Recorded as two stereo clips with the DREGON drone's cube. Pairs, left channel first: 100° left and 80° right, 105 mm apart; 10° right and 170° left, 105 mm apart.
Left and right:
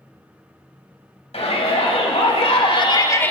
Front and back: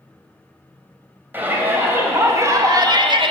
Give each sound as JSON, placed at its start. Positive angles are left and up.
{"t": 1.3, "sound": "a shout", "azimuth_deg": 100, "distance_m": 3.0}